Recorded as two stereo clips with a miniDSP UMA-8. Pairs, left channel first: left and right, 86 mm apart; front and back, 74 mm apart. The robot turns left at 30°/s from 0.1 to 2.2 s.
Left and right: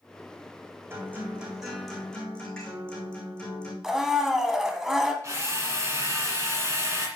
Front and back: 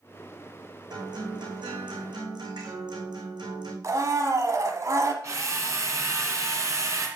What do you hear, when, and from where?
0.9 s a guitar: 155° right, 3.5 m; by 3.7 s 170° left, 3.5 m
3.8 s a blender: 175° right, 1.1 m
5.2 s a drill: 140° right, 2 m